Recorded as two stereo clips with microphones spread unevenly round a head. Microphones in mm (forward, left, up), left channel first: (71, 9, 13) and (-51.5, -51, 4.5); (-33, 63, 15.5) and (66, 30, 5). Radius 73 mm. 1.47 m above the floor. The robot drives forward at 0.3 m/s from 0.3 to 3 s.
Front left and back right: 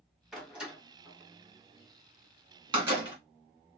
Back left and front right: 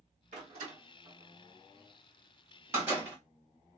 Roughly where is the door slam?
Ahead right.